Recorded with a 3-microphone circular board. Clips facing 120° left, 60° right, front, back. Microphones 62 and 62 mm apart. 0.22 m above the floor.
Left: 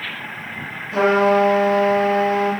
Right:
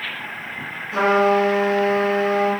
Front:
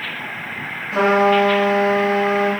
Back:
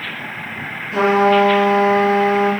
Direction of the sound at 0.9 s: 5° left.